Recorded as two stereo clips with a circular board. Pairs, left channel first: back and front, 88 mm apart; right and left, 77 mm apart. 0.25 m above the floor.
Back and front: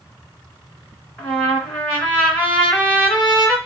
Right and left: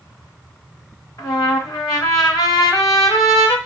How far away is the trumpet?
About 1.9 m.